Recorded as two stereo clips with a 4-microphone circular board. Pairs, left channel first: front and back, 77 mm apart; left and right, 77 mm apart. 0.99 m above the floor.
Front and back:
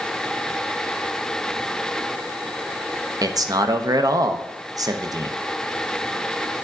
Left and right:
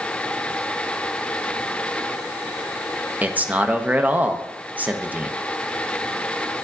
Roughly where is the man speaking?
Behind right.